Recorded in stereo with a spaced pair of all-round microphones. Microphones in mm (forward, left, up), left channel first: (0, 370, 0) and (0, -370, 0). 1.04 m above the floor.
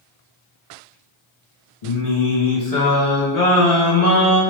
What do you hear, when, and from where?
1.8 s singing: 55° left (ahead or behind), 1.1 m